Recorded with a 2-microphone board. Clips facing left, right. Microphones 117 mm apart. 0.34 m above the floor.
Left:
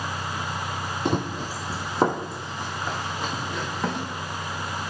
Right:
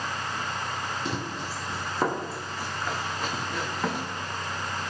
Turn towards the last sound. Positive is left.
turn(degrees=5)  # may be behind; listen again after turning